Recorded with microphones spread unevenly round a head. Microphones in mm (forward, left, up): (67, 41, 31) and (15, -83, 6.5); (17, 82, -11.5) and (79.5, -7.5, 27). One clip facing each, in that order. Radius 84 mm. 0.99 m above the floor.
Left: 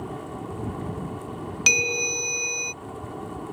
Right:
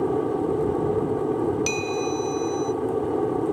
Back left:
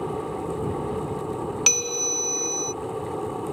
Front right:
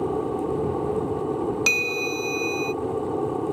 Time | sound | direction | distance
0.0 | an aircraft | 125° right | ?
1.7 | a bell | 50° left | ?